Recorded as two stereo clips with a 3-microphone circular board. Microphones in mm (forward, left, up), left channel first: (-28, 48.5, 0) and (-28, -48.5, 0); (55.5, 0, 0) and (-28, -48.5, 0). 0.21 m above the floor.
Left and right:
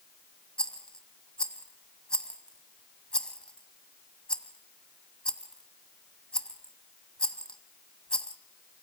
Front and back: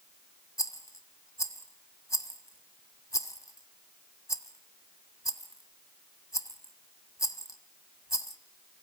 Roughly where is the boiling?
No boiling in this recording.